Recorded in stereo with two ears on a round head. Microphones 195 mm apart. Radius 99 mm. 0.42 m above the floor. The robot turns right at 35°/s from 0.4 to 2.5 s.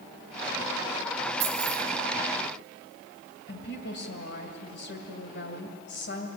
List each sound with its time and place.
1.4 s keys jangling: 50° right (ahead or behind), 9.5 m; by 1.8 s 40° right (ahead or behind), 9.5 m
3.5 s a woman speaking: 55° left (ahead or behind), 2 m